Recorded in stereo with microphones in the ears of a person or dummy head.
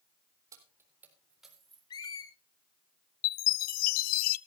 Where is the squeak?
25° left (ahead or behind), 1.8 m.